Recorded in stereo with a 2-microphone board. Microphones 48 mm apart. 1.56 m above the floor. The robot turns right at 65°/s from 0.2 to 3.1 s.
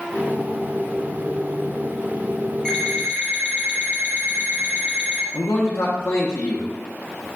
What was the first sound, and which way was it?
An alarm clock, 15° left (ahead or behind).